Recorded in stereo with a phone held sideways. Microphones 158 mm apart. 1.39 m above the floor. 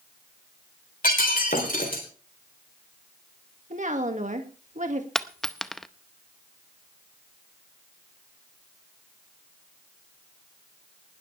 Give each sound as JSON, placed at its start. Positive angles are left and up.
{"t": 1.0, "sound": "breaking glass", "side_deg": 75, "distance_m": 3.5}
{"t": 3.7, "sound": "a woman speaking", "side_deg": -55, "distance_m": 2.0}
{"t": 5.2, "sound": "a dropped coin", "side_deg": 5, "distance_m": 0.7}